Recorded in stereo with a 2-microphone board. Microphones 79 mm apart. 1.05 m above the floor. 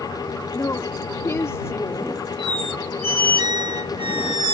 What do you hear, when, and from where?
0.5 s a woman speaking: 35° left (ahead or behind)
2.4 s a squeak: 85° right